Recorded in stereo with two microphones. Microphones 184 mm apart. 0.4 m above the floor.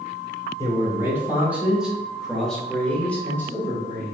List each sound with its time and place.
0.6 s a man speaking: 15° right (ahead or behind), 1.3 m; by 4.2 s 15° left (ahead or behind), 2 m